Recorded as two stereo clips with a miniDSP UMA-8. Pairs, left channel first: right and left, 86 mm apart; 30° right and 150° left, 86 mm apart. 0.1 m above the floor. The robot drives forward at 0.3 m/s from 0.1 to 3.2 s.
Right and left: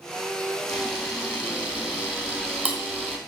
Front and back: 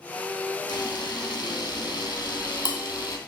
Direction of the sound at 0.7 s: 10° left.